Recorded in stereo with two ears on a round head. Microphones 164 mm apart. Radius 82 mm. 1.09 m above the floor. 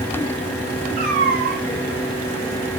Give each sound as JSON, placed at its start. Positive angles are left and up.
{"t": 1.0, "sound": "a cat meowing", "side_deg": -55, "distance_m": 7.5}